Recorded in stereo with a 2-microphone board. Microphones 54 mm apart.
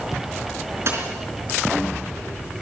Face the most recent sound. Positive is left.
turn(degrees=-50)  # may be behind; listen again after turning